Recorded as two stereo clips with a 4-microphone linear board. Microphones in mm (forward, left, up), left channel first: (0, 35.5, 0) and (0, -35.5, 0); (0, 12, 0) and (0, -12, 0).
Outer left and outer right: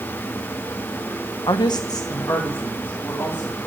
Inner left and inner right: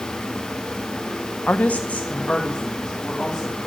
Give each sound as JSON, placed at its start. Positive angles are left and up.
{"t": 1.5, "sound": "a woman speaking", "side_deg": 80, "distance_m": 0.8}